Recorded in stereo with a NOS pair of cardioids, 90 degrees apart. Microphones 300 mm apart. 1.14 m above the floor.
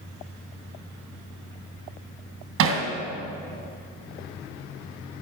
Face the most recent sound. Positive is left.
turn(degrees=-65)